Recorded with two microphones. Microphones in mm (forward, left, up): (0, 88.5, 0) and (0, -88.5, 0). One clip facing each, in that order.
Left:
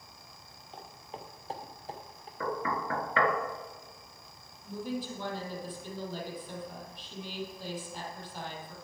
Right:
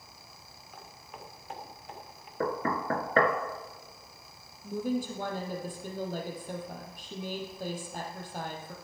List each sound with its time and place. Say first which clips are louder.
0.7 s footsteps: left 3 dB; 25° left (ahead or behind), 2 m; by 2.3 s 35° left (ahead or behind), 3 m
2.4 s knocking: right 3 dB; 45° right (ahead or behind), 1.4 m
4.6 s a woman speaking: right 5 dB; 45° right (ahead or behind), 3.5 m